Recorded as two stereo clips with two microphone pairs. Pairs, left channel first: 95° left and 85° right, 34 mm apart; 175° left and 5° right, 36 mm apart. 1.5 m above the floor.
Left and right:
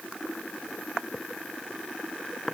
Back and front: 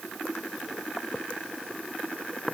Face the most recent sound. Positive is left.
No sound to turn to.